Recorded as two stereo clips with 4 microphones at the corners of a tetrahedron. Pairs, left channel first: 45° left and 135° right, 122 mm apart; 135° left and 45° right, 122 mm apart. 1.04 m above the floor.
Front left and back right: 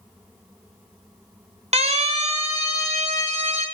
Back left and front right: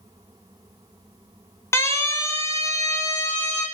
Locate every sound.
1.7 s a siren: 160° right, 3 m